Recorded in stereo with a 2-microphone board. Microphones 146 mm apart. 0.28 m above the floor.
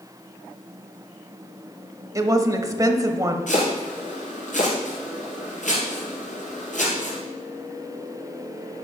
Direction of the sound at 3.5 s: 65° left (ahead or behind).